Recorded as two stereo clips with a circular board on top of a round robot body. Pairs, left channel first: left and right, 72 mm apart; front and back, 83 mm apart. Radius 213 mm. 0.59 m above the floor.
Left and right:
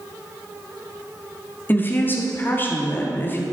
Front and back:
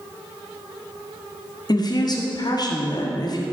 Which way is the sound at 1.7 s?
30° left.